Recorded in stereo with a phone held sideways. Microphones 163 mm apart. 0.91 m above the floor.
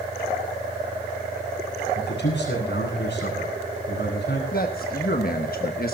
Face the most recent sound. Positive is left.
turn(degrees=60)  # may be behind; listen again after turning